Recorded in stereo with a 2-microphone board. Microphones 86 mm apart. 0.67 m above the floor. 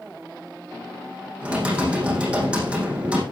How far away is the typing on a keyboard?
About 6.5 m.